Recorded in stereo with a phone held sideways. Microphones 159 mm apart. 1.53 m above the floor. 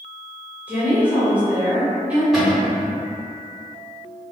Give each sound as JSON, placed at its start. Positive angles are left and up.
{"t": 0.7, "sound": "a woman speaking", "side_deg": -10, "distance_m": 1.2}
{"t": 2.3, "sound": "a cupboard door", "side_deg": 0, "distance_m": 1.1}